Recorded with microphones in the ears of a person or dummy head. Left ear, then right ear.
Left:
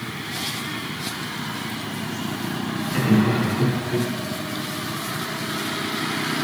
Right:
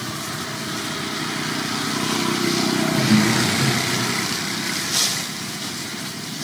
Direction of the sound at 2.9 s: 65° left (ahead or behind).